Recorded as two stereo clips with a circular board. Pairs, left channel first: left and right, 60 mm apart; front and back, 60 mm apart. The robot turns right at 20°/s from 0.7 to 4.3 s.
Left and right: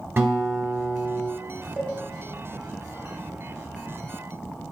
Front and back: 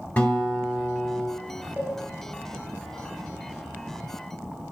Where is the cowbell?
135° right, 1.3 m; by 2.0 s 130° right, 1.3 m.